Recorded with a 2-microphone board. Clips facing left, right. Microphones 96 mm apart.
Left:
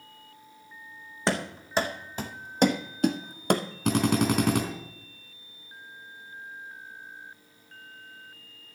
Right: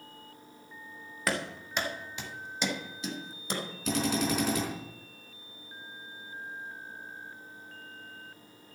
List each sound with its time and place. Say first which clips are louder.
1.3 s running footsteps: left 4 dB; 30° left (ahead or behind), 1.5 m; by 3.6 s 65° left (ahead or behind), 1.1 m
3.9 s a drill: left 5 dB; 55° left (ahead or behind), 3 m